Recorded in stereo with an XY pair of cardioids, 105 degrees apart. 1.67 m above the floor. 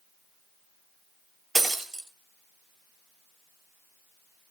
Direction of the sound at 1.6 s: 25° right.